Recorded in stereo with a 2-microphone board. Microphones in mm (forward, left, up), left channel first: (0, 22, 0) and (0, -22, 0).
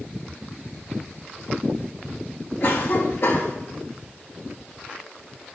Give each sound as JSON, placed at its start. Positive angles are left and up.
{"t": 2.6, "sound": "a cough", "side_deg": 55, "distance_m": 1.3}